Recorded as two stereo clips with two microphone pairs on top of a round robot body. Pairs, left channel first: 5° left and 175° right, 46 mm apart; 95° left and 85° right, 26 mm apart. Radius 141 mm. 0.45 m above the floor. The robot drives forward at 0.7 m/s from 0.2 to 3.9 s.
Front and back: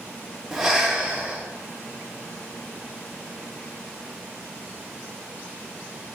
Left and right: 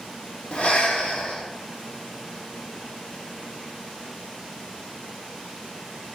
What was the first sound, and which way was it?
Breathing, 105° left.